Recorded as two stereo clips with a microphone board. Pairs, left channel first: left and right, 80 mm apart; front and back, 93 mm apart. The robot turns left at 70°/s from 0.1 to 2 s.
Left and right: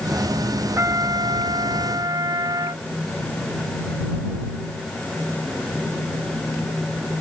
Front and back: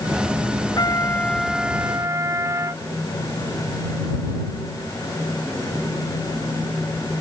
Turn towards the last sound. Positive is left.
turn(degrees=-125)